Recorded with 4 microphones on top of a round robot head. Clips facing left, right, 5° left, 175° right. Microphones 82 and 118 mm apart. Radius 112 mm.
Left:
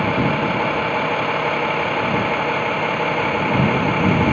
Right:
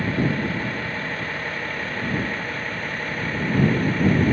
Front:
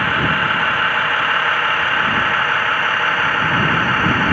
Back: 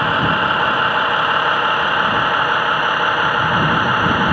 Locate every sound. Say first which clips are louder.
0.0 s a vehicle: left 5 dB, back 2 dB; 110° left; by 4.3 s 105° left